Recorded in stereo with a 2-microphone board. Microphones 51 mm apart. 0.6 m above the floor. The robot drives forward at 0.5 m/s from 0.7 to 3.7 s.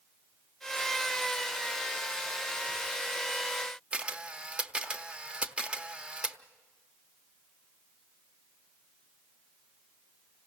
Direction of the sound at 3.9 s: 20° right (ahead or behind).